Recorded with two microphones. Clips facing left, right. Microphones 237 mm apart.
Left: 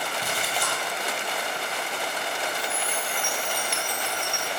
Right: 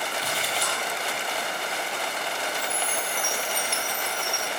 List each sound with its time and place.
0.2 s a splash: 50° left (ahead or behind), 4 m
2.6 s a chime: 10° left (ahead or behind), 1.7 m